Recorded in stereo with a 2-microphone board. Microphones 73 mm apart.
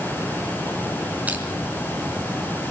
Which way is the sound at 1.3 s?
20° right (ahead or behind).